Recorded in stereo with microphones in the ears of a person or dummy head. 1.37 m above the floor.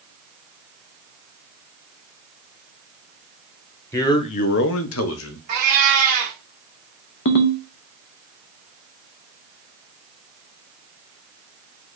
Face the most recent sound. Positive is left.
turn(degrees=60)  # may be behind; listen again after turning